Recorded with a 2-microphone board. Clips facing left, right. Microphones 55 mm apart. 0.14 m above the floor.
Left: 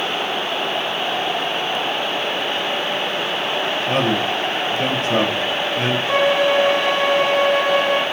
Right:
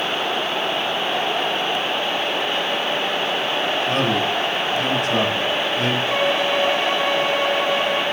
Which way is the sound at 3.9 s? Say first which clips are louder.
Left 3 dB; 30° left (ahead or behind).